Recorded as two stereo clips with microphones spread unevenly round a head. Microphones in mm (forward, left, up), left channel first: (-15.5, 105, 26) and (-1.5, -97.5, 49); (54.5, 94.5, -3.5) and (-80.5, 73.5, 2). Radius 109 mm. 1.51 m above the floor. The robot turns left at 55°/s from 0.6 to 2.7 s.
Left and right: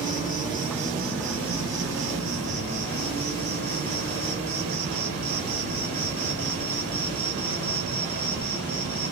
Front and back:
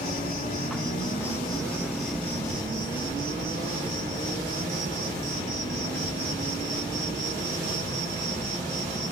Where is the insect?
15° right, 3 m; by 9.1 s 130° right, 3 m.